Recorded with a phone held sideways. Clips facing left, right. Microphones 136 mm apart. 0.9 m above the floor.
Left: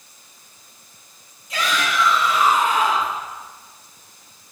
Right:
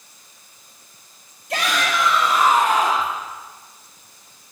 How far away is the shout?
About 1.7 m.